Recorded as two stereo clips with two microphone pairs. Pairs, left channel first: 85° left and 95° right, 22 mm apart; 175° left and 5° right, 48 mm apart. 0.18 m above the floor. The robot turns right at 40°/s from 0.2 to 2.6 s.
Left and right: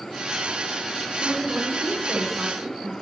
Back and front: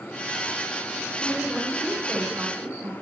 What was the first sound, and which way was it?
A woman speaking, 85° right.